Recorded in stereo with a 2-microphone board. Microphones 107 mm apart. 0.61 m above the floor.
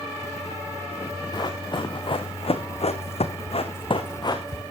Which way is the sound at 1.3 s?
40° left (ahead or behind).